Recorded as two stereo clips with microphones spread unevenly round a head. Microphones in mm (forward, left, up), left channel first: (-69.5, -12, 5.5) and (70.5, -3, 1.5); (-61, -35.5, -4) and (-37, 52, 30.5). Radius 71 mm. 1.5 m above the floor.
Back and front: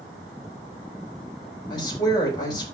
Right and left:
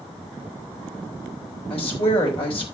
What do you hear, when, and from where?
1.7 s a woman speaking: 115° right, 3 m